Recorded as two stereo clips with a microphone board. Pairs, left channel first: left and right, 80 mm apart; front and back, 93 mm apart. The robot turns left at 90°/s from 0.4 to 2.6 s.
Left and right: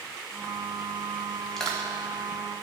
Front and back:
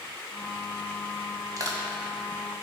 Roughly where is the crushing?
Behind.